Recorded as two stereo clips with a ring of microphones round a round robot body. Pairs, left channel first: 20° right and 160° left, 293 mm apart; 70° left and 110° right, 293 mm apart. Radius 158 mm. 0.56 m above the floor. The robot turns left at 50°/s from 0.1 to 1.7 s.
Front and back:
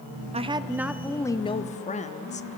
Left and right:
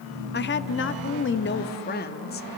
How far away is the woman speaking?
About 0.9 m.